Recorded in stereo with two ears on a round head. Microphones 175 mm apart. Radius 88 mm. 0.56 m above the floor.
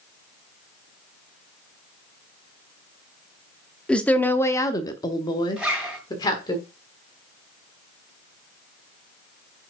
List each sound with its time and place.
3.9 s a woman speaking: 5° left (ahead or behind), 0.8 m; by 6.6 s 20° left (ahead or behind), 1.5 m
5.6 s a zipper: 5° right (ahead or behind), 2.5 m